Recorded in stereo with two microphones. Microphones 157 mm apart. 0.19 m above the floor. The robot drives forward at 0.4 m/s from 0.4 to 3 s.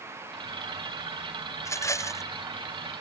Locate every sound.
1.6 s a rattle: 20° left (ahead or behind)